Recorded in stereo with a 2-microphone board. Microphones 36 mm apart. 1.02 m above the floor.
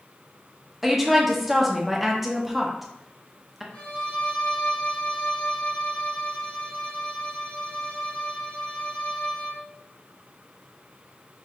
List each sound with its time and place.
0.8 s a woman speaking: 5° right (ahead or behind), 0.8 m
3.7 s a violin: 65° left (ahead or behind), 1.6 m